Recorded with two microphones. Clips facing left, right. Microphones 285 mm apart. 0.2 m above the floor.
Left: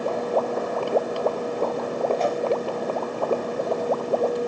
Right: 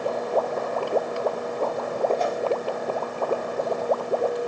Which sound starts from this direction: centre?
A whoosh, at 2.2 s.